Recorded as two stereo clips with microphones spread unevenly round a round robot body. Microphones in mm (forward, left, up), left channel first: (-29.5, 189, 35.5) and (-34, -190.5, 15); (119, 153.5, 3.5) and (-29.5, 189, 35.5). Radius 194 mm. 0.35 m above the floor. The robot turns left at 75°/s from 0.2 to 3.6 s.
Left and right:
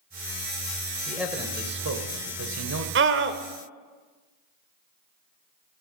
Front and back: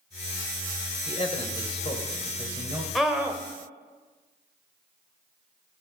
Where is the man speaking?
5° left, 1.5 m; by 2.9 s 130° right, 1.5 m.